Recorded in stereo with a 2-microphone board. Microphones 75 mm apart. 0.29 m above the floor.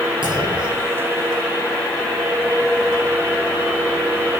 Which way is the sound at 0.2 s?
85° right.